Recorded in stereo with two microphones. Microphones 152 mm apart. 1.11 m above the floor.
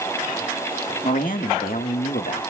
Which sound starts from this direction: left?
A man speaking, at 1.0 s.